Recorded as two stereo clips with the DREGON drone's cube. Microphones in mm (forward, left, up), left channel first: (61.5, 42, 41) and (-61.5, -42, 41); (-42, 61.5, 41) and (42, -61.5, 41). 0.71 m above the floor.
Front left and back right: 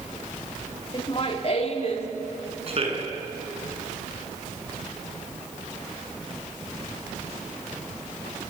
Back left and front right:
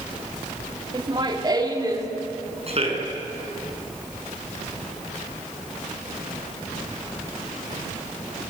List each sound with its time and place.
0.9 s laughter: 10° right, 1.7 m; by 2.1 s 5° left, 3 m
2.7 s a man speaking: 100° right, 7 m